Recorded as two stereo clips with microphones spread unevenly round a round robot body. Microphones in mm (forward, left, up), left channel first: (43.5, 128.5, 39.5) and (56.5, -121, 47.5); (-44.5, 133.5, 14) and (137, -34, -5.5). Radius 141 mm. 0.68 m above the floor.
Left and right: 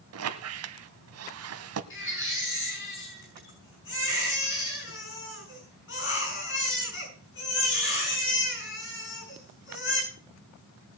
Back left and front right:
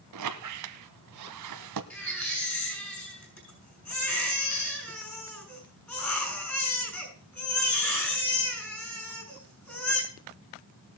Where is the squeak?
65° right, 1.0 m.